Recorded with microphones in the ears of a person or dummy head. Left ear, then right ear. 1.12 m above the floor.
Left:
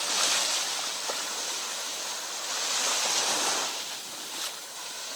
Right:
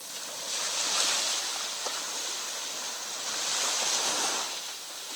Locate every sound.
Only background noise.